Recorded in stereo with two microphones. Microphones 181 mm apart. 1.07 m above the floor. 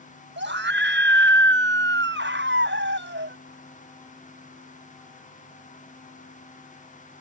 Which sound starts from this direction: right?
A scream, at 0.4 s.